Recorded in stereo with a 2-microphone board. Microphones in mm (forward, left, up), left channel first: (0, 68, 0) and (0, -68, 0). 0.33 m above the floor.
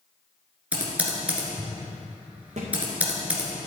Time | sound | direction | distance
0.7 | typing on a keyboard | 10° right (ahead or behind) | 2.0 m
2.6 | a thud | 60° right (ahead or behind) | 2.5 m